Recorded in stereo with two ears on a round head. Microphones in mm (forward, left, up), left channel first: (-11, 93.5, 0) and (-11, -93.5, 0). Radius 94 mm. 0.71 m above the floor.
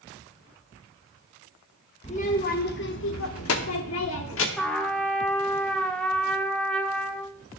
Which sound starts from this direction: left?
A child speaking, at 2.0 s.